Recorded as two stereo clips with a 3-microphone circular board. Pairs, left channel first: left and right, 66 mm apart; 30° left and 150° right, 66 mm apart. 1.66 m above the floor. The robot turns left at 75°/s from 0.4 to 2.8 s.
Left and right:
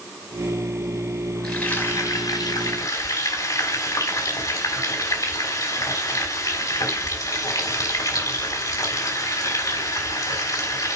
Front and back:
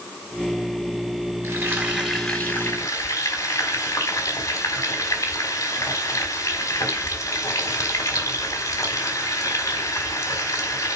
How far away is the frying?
About 4.5 m.